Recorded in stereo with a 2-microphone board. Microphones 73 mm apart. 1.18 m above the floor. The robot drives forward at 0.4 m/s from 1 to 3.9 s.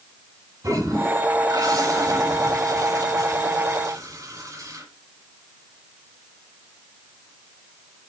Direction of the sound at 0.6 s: 50° right (ahead or behind).